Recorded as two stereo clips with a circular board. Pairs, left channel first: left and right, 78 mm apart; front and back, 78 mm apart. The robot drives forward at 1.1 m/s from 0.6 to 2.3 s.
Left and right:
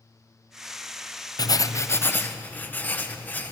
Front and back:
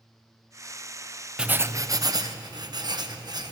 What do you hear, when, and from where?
1.4 s writing: 100° left, 0.6 m; by 3.5 s 155° left, 1.2 m